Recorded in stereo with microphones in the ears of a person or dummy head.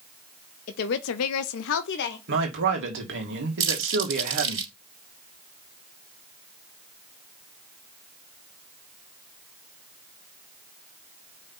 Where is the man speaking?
60° right (ahead or behind), 2 m.